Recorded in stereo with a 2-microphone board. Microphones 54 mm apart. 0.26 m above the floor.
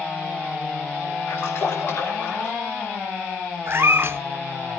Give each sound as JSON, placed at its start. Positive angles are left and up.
{"t": 1.3, "sound": "a splash", "side_deg": 50, "distance_m": 5.5}
{"t": 3.7, "sound": "a cat meowing", "side_deg": -50, "distance_m": 0.6}